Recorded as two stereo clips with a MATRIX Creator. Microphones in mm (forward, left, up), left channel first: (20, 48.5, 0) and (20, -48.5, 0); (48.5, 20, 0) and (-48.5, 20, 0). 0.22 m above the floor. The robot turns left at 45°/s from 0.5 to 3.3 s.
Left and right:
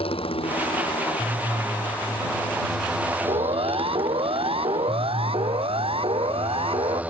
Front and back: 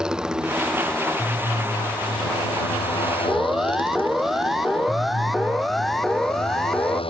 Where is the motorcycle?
100° left; by 7.1 s 15° right.